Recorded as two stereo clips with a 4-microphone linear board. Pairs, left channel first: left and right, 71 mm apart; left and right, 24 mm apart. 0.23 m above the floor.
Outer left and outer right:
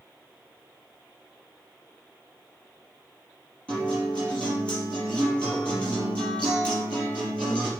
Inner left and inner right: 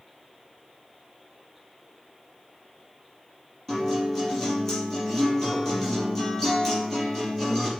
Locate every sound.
3.7 s a guitar: 15° left (ahead or behind), 5 m